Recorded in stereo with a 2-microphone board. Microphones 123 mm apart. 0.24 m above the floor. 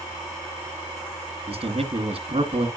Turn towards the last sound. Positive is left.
turn(degrees=-55)  # may be behind; listen again after turning